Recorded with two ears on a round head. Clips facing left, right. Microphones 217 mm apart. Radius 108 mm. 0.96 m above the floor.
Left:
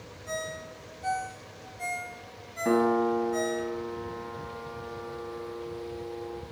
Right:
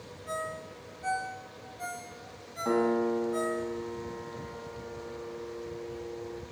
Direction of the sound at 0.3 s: 5° right (ahead or behind).